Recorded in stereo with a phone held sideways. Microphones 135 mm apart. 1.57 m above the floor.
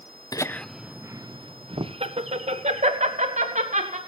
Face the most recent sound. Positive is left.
turn(degrees=-60)  # may be behind; listen again after turning